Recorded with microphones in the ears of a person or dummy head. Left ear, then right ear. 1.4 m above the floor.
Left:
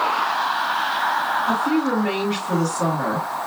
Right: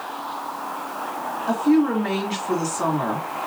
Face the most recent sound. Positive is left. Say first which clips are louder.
# even
turn(degrees=-55)  # may be behind; listen again after turning